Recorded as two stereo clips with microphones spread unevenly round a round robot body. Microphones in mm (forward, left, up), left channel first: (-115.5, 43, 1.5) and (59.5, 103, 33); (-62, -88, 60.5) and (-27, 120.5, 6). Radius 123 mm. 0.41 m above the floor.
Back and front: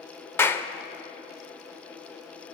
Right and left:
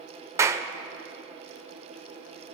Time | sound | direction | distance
0.4 | a clap | 135° left | 0.8 m